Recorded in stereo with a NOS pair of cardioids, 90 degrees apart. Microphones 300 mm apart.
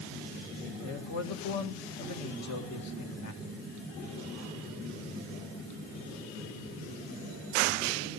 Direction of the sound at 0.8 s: 65° left.